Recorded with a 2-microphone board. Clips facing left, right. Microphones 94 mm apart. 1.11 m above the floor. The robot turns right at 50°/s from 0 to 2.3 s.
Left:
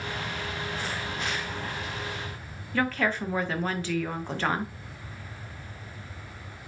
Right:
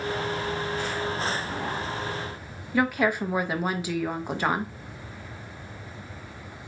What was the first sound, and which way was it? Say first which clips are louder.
A woman speaking: right 3 dB; 15° right (ahead or behind).